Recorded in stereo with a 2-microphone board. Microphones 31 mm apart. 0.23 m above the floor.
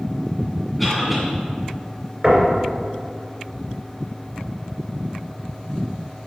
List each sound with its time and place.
0.8 s a cough: centre (ahead or behind), 2 m
2.2 s knocking: 20° right (ahead or behind), 3 m